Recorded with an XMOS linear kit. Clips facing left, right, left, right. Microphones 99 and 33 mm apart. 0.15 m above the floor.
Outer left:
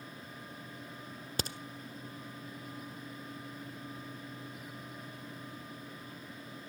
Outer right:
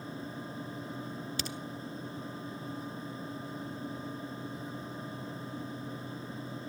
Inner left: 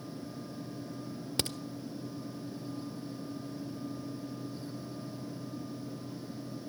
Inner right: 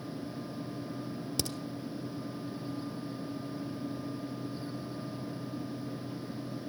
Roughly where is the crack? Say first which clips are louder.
Outer left 1 dB, inner left 3 dB; left.